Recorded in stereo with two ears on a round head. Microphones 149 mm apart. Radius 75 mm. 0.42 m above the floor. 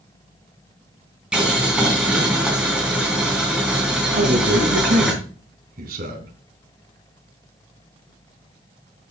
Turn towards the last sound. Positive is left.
turn(degrees=-60)  # may be behind; listen again after turning